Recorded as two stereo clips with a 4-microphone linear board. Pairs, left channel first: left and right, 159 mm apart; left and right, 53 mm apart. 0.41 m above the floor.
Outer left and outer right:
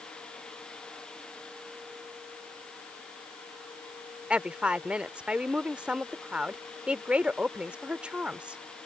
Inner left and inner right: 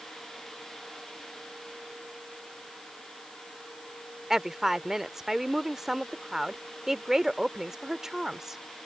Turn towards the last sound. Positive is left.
turn(degrees=-5)  # may be behind; listen again after turning